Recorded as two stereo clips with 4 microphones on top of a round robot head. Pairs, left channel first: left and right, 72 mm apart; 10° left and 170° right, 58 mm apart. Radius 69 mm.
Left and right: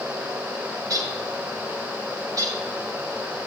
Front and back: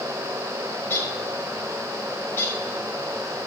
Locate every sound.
0.8 s a bird: 55° right, 1.8 m